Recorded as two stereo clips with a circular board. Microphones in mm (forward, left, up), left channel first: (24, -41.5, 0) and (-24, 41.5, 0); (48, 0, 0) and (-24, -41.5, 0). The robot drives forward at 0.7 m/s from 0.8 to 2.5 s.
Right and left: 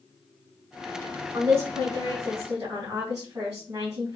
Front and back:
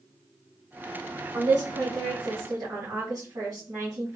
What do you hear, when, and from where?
1.3 s a woman speaking: 175° left, 1.1 m